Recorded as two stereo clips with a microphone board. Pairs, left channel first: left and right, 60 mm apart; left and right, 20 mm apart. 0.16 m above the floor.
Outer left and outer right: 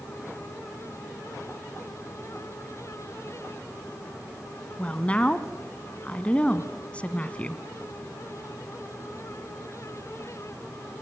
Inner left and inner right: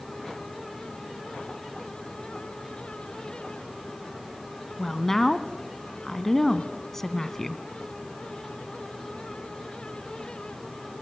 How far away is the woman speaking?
About 1.3 m.